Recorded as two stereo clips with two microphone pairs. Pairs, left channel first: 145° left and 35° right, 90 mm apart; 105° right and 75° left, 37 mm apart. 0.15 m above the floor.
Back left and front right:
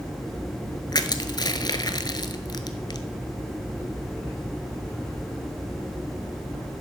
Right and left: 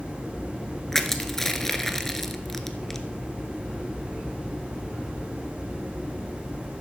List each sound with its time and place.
0.9 s crushing: 175° left, 0.7 m